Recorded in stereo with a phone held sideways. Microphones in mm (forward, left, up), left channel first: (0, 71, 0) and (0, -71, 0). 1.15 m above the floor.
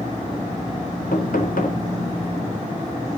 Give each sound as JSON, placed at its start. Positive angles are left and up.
{"t": 1.1, "sound": "knocking", "side_deg": 85, "distance_m": 4.0}